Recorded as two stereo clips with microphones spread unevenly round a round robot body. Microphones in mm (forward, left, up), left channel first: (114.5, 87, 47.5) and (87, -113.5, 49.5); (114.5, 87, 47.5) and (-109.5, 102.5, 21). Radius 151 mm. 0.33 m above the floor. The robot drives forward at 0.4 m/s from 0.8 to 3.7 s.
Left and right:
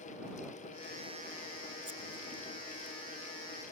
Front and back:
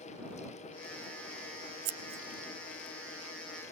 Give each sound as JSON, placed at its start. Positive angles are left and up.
{"t": 1.9, "sound": "scissors", "azimuth_deg": 175, "distance_m": 0.6}